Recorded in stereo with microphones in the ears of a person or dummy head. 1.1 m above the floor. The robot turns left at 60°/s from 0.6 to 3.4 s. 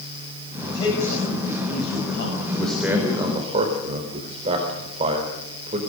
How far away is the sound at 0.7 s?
About 5.5 m.